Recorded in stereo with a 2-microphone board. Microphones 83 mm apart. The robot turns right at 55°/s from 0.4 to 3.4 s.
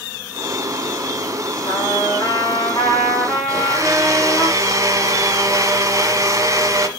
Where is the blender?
40° right (ahead or behind), 1.1 m.